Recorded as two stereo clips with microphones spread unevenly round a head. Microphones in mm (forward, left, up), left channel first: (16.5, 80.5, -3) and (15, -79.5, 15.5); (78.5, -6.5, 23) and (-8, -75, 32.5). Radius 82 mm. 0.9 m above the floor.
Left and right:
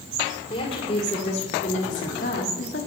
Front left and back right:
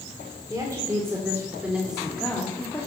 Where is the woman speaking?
150° left, 2.5 m; by 2.9 s 110° left, 1.4 m.